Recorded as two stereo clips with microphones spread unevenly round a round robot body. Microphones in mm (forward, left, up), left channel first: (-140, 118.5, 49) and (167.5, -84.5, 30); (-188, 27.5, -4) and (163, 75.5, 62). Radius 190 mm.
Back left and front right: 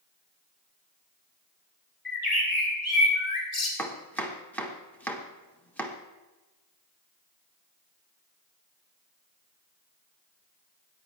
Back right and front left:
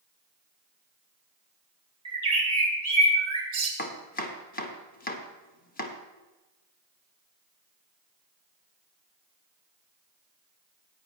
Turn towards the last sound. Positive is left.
turn(degrees=-125)